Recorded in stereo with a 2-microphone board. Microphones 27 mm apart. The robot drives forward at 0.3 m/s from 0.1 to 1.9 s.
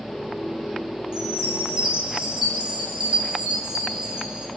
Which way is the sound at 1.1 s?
30° right (ahead or behind).